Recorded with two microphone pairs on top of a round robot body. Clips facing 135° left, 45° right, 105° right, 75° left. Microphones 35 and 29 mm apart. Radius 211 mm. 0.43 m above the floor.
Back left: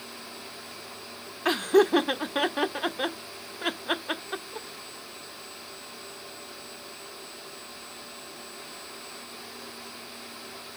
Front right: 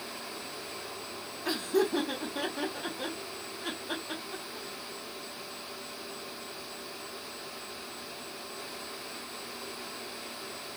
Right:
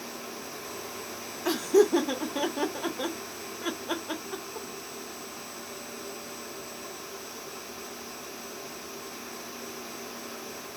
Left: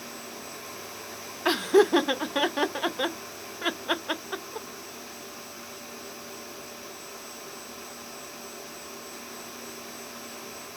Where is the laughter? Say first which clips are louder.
Back left 7 dB, left 2 dB; 115° left, 1.0 m.